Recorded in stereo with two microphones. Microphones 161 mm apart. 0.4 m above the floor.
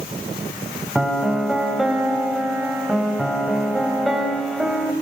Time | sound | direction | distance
0.9 | a piano | centre (ahead or behind) | 2.5 m